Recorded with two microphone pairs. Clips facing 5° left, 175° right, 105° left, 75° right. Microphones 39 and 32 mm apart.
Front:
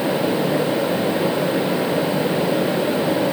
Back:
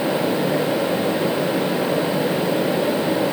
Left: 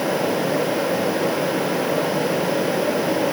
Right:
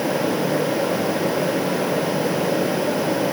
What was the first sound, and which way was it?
Only background noise.